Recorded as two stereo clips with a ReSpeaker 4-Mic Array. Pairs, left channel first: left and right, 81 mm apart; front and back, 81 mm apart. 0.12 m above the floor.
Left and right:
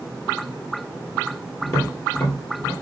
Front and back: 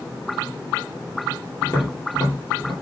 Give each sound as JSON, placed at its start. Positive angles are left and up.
{"t": 1.6, "sound": "tapping", "azimuth_deg": 50, "distance_m": 2.5}